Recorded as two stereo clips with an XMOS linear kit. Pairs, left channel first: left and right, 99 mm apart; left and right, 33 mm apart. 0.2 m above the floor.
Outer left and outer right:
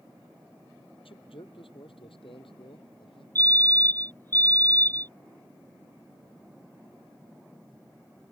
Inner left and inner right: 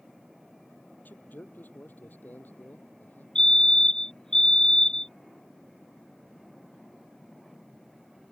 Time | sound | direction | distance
1.1 | a man speaking | 75° left (ahead or behind) | ?
3.4 | a fire alarm | 25° left (ahead or behind) | ?